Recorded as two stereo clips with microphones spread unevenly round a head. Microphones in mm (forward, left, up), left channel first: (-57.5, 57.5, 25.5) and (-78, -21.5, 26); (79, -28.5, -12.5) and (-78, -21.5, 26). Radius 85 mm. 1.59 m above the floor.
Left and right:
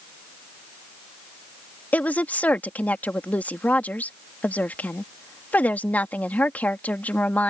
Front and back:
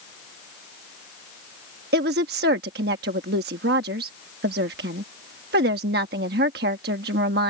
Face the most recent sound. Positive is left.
turn(degrees=145)